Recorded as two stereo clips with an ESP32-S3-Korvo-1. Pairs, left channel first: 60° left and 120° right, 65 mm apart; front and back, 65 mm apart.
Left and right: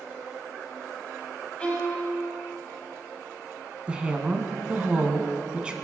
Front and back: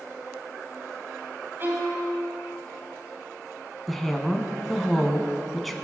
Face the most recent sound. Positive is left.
turn(degrees=-90)